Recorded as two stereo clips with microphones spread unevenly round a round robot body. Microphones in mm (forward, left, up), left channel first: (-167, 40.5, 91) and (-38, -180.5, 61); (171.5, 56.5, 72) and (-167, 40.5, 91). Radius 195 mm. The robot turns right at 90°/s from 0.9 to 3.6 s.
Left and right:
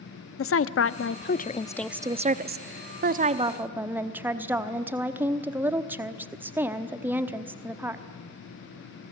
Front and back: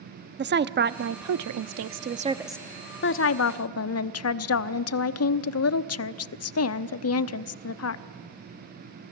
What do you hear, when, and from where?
0.4 s a woman speaking: 130° left, 0.9 m; by 8.0 s 15° left, 0.9 m